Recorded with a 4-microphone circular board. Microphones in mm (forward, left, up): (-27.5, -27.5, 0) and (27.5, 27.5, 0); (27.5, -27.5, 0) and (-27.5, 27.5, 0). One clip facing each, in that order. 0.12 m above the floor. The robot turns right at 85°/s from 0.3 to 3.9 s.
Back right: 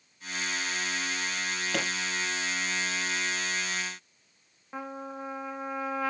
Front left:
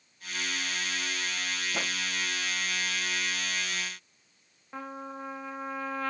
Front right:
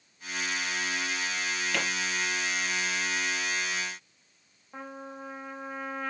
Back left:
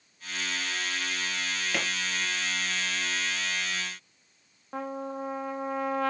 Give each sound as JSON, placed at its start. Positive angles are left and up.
{"t": 1.7, "sound": "a pop", "azimuth_deg": -145, "distance_m": 3.5}
{"t": 4.7, "sound": "a trumpet", "azimuth_deg": 140, "distance_m": 1.0}